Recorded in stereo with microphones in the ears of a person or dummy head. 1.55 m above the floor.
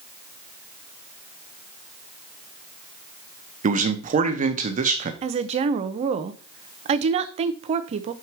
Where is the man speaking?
35° right (ahead or behind), 0.9 m.